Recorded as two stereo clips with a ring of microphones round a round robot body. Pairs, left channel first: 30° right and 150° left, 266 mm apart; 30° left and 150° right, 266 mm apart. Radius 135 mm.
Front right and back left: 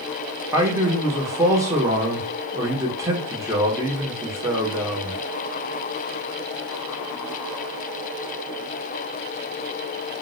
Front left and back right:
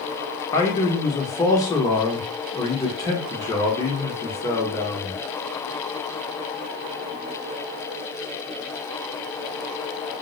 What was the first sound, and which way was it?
A man speaking, 90° left.